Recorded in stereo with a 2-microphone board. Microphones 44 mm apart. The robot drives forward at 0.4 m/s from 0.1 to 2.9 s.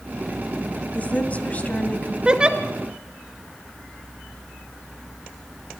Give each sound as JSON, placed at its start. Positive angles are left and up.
{"t": 0.9, "sound": "a woman speaking", "side_deg": 35, "distance_m": 1.8}
{"t": 2.2, "sound": "a giggle", "side_deg": -20, "distance_m": 1.1}